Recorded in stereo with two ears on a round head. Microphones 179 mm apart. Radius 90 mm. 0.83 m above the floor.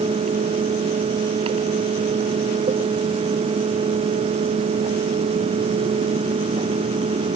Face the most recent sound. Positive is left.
No sound to turn to.